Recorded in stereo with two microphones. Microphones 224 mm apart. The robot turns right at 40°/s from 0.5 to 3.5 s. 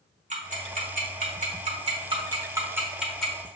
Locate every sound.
0.3 s ticking: 35° right (ahead or behind), 1.0 m; by 3.5 s 5° left (ahead or behind), 1.0 m